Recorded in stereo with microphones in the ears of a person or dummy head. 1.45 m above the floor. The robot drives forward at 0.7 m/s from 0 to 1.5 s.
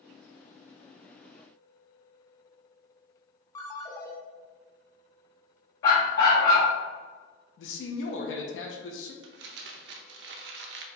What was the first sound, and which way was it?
A ringtone, 15° left (ahead or behind).